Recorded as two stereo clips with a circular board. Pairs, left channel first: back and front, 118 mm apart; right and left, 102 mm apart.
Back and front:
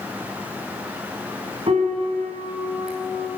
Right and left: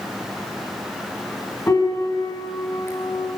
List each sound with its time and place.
1.7 s a piano: 30° right, 6 m